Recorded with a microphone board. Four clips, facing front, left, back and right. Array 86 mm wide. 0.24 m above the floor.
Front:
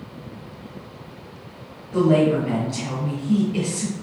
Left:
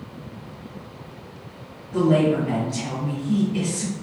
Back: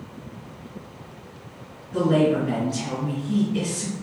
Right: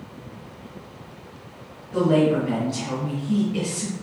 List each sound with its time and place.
1.9 s a woman speaking: 15° right, 2.5 m